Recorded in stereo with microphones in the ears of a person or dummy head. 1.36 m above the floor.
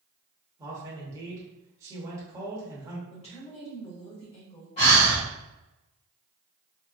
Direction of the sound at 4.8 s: 25° left (ahead or behind).